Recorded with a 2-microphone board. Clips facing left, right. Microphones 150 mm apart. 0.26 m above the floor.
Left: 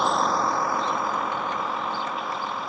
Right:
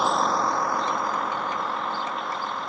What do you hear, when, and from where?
0.0 s a vehicle: centre (ahead or behind)